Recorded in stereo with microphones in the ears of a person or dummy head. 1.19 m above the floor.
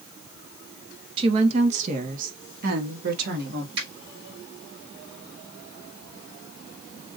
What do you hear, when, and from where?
1.2 s a woman speaking: 30° right (ahead or behind), 1.1 m; by 3.6 s 60° right (ahead or behind), 2 m
3.8 s a finger snap: 25° right (ahead or behind), 4 m